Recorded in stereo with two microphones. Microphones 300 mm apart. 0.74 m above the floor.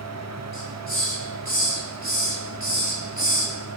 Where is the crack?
No crack in this recording.